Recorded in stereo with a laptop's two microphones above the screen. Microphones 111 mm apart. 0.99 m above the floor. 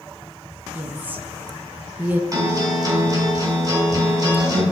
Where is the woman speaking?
15° right (ahead or behind), 0.8 m.